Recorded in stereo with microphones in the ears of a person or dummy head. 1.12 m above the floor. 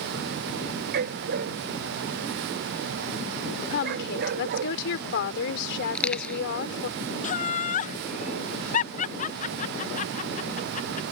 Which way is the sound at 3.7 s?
65° left (ahead or behind).